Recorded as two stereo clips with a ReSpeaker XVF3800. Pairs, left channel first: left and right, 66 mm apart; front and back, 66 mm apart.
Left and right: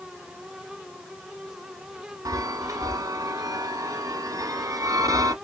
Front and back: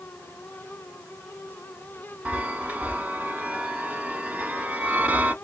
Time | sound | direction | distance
2.2 | a chime | 110° right | 1.5 m